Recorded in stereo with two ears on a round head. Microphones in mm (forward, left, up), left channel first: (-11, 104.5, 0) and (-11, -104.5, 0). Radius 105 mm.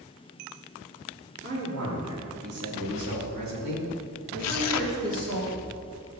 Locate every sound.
1.4 s a man speaking: 50° right (ahead or behind), 3 m; by 5.4 s 55° right (ahead or behind), 3 m
4.4 s tearing paper: 70° left (ahead or behind), 0.5 m